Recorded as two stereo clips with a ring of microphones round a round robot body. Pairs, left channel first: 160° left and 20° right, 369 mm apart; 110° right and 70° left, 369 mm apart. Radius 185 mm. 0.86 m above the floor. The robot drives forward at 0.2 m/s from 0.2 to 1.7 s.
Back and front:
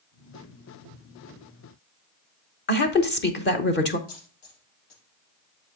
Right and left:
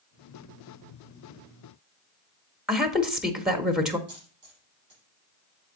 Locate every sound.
2.7 s a woman speaking: 155° left, 0.9 m
4.1 s a dropped coin: 130° left, 5.5 m